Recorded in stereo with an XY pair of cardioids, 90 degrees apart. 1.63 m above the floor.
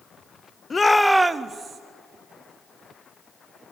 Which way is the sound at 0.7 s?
35° left.